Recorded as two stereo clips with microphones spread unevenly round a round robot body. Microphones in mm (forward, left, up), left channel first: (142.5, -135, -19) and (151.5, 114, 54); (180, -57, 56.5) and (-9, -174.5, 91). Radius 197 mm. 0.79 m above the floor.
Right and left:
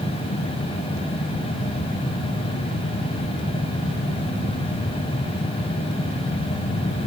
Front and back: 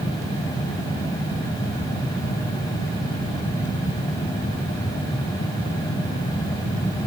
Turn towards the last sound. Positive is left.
No sound to turn to.